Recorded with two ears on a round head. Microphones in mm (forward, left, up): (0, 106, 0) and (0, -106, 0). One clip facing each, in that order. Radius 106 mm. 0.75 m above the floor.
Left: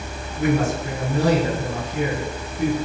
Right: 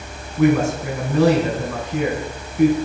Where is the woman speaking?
60° right (ahead or behind), 5.5 m.